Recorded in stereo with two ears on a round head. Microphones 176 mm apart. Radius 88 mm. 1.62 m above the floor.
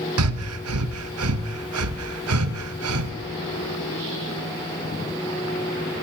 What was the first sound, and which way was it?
Breathing, 85° right.